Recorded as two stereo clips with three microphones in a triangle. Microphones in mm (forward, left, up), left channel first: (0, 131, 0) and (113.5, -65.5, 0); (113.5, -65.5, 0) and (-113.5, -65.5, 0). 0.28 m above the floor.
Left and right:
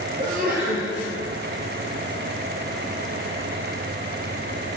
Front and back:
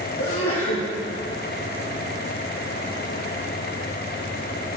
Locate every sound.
0.2 s a sneeze: 10° right, 7.5 m